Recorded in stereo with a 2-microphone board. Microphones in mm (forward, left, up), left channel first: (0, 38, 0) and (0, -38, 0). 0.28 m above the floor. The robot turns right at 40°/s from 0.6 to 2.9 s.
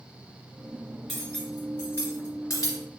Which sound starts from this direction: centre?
Cutlery clinking, at 1.1 s.